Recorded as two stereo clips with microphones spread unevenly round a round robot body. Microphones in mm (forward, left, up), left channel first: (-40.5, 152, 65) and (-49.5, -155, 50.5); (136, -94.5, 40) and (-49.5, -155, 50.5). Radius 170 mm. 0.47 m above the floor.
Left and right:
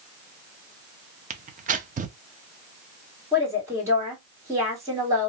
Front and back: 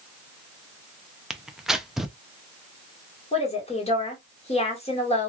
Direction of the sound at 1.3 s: 70° right.